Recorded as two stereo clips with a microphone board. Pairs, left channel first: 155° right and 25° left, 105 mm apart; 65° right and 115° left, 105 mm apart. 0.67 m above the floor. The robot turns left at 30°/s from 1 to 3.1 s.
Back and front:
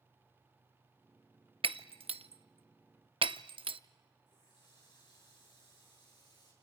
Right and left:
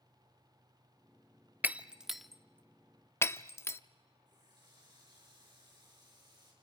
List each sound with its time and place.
1.6 s breaking glass: 40° left, 0.5 m; by 3.8 s 5° right, 0.5 m
4.3 s a running tap: 160° left, 6.5 m